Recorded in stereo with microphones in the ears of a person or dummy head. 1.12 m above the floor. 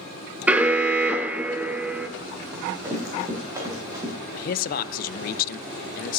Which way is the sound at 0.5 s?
5° right (ahead or behind).